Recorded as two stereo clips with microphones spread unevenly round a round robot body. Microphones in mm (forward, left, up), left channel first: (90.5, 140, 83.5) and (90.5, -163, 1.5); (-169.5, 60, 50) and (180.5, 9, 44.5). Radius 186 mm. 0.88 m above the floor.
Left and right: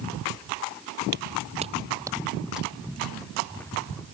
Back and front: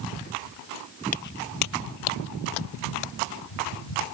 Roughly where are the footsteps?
Behind right.